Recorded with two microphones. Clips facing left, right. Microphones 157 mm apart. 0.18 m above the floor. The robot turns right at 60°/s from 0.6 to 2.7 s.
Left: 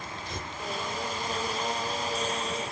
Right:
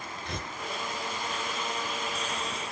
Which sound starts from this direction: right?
Tearing paper, at 0.2 s.